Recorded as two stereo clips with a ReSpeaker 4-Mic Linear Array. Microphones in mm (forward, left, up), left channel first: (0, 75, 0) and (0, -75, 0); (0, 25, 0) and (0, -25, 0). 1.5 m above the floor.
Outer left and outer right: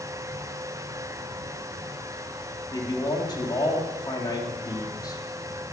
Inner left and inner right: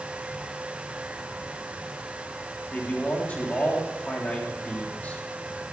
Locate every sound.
2.7 s a man speaking: 25° left (ahead or behind), 3.5 m